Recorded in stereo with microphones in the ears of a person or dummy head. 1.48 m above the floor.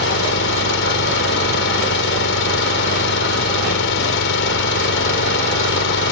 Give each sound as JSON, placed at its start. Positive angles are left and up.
{"t": 0.0, "sound": "an engine running", "side_deg": 65}